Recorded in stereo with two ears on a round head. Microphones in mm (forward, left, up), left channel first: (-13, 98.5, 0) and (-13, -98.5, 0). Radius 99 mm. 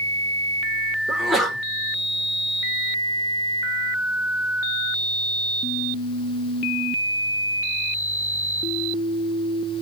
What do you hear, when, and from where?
1.1 s a sneeze: centre (ahead or behind), 1.4 m